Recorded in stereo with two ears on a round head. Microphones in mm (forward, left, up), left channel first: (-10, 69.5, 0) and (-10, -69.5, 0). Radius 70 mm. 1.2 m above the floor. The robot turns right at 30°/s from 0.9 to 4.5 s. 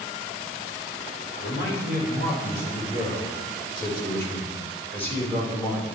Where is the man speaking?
75° left, 4.5 m; by 5.9 s 165° left, 4.5 m.